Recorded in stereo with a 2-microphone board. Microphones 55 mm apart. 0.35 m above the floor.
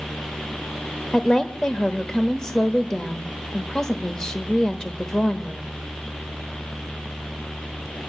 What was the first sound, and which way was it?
A woman speaking, 10° left (ahead or behind).